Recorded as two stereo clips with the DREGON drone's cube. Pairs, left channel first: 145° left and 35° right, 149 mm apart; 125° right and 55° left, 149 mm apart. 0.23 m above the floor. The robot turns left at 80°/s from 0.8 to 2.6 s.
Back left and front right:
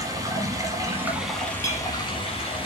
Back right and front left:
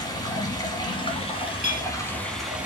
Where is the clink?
100° right, 2.5 m; by 1.9 s 120° right, 2.5 m.